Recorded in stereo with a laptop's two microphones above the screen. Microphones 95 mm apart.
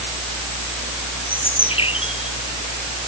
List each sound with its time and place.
0.0 s a fan: 60° left (ahead or behind)
1.3 s a bird: 85° left